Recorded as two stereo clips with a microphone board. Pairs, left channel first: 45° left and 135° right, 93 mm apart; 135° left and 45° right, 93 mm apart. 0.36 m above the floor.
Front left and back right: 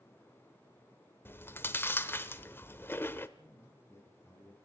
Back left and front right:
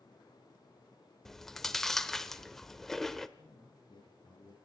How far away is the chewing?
About 1.0 m.